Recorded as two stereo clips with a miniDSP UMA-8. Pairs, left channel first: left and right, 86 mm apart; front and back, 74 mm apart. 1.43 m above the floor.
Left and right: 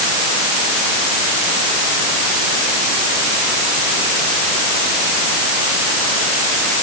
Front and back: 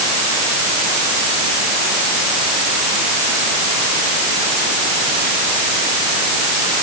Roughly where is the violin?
I don't hear a violin.